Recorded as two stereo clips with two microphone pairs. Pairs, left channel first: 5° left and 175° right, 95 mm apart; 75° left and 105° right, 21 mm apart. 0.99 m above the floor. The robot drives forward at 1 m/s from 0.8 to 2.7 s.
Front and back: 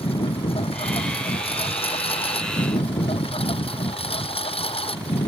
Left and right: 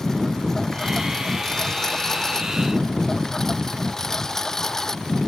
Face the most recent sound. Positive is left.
turn(degrees=0)